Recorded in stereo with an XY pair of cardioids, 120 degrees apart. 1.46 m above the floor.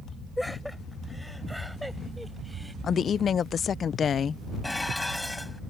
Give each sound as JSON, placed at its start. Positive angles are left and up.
{"t": 0.4, "sound": "laughter", "azimuth_deg": 5}
{"t": 2.8, "sound": "a woman speaking", "azimuth_deg": 45}
{"t": 4.6, "sound": "dishes clattering", "azimuth_deg": 10}